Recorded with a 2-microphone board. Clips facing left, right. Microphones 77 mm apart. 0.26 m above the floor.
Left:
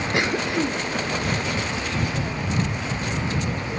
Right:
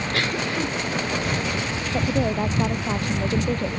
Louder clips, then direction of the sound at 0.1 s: Left 3 dB; 20° left (ahead or behind).